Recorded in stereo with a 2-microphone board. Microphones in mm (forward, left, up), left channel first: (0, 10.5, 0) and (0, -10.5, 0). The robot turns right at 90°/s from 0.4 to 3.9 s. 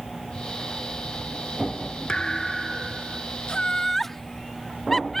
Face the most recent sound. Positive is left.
turn(degrees=10)  # may be behind; listen again after turning